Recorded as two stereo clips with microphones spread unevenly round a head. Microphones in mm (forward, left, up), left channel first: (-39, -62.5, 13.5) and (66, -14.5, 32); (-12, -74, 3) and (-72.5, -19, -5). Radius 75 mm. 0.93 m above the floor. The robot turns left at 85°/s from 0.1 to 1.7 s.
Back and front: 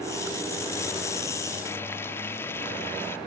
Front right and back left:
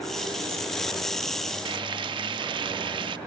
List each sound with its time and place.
1.6 s frying: 130° left, 0.5 m; by 3.2 s 125° left, 0.5 m